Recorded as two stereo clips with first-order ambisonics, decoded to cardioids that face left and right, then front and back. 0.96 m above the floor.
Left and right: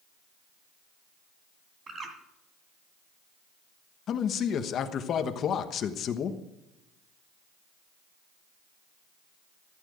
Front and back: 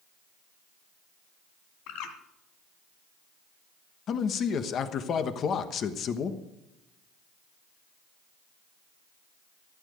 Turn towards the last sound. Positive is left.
turn(degrees=45)